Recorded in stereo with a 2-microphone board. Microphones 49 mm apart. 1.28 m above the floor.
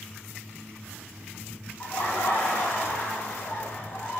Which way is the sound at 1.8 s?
40° left (ahead or behind).